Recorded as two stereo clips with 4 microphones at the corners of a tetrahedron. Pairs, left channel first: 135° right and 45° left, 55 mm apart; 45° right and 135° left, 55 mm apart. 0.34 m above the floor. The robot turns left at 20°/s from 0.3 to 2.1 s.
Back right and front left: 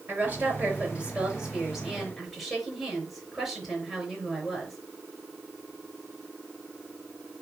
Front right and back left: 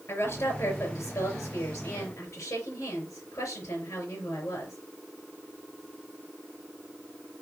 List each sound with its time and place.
0.1 s a woman speaking: 10° right, 4.5 m; by 4.8 s 45° right, 4.5 m